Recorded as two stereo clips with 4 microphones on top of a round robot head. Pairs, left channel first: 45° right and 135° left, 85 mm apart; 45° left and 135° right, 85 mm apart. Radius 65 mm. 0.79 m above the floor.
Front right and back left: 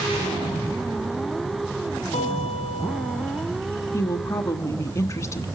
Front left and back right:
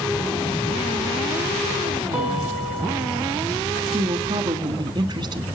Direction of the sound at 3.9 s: 100° right.